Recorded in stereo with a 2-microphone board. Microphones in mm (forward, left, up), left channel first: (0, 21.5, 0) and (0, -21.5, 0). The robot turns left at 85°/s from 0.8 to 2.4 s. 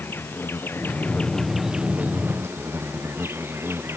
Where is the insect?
65° left; by 4.0 s 75° right.